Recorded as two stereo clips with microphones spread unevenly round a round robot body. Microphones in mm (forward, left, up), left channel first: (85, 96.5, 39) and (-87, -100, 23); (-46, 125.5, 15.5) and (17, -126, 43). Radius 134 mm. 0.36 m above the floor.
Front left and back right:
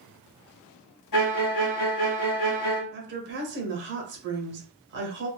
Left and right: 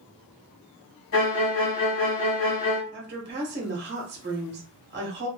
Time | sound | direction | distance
1.1 | a violin | 65° left | 1.2 m
2.9 | a woman speaking | 120° right | 1.1 m